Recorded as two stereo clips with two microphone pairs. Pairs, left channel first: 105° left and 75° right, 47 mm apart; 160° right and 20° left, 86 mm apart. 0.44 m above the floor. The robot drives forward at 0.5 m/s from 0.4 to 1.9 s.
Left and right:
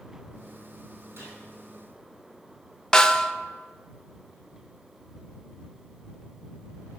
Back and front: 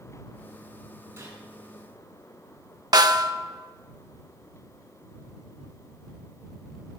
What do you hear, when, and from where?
1.2 s a gunshot: 40° right, 5 m
2.9 s a snare drum: 35° left, 0.5 m